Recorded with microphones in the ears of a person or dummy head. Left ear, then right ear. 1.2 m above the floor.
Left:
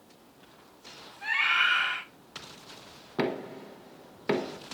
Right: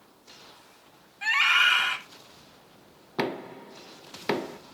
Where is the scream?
60° right (ahead or behind), 3 m.